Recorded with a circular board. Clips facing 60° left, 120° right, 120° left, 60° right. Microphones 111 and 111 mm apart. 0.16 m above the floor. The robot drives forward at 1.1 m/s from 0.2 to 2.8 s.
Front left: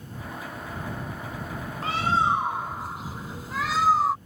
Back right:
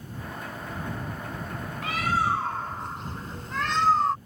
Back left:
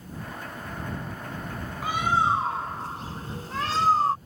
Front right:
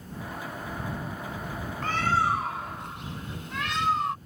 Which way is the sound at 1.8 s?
45° left.